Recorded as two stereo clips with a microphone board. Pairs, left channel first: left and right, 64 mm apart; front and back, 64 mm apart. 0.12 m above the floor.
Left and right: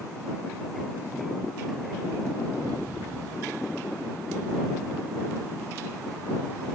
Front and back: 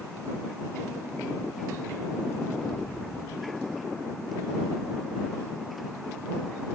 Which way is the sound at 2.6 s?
85° right.